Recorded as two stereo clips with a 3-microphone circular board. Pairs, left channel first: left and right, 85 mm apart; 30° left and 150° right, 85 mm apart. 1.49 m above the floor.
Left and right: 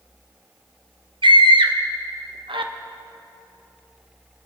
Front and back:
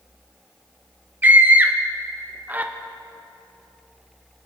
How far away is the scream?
About 0.7 m.